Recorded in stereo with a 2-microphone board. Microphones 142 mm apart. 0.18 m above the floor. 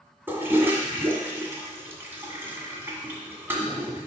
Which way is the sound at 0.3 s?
15° right (ahead or behind).